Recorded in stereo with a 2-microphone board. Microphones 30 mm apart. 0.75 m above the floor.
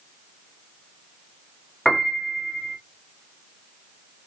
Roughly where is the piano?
Left.